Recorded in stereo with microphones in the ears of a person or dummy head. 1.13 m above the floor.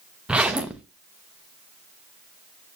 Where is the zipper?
5° right (ahead or behind), 0.7 m.